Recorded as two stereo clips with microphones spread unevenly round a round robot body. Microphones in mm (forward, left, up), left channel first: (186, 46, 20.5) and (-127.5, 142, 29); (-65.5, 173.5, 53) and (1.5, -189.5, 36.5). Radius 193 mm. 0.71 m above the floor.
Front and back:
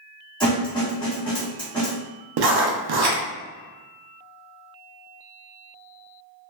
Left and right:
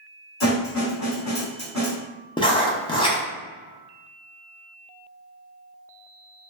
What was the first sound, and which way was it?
A snare drum, 55° left.